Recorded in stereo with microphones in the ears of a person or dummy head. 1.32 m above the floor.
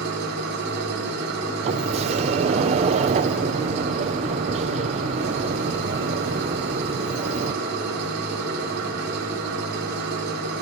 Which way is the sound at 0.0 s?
55° right (ahead or behind).